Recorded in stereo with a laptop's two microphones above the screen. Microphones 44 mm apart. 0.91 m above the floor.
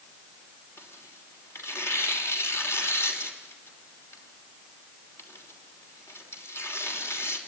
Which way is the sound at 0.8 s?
70° left (ahead or behind).